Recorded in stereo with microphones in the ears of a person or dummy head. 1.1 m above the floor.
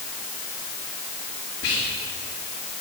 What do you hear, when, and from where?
1.6 s whispering: 70° left (ahead or behind), 2 m